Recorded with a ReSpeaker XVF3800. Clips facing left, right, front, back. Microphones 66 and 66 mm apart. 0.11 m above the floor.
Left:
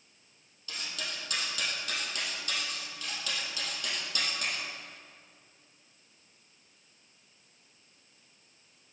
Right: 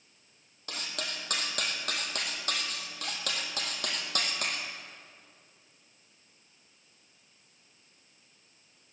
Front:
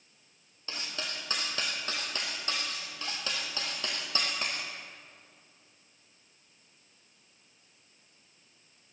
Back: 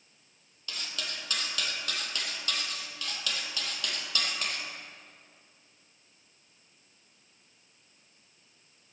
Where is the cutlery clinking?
60° right, 1.9 m.